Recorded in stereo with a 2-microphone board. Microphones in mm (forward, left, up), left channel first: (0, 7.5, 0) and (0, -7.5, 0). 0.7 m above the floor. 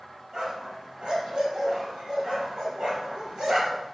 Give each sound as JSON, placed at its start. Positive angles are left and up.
{"t": 0.3, "sound": "a dog barking", "side_deg": -70, "distance_m": 5.0}